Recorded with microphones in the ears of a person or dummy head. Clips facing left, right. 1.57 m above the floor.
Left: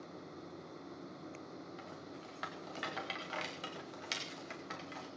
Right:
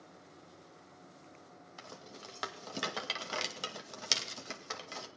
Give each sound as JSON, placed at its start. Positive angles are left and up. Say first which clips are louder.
{"t": 1.8, "sound": "a rattle", "louder": "left 3 dB", "side_deg": -70, "distance_m": 2.0}